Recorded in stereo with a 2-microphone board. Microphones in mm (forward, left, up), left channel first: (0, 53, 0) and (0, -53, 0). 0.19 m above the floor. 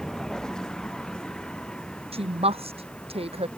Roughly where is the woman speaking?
Right.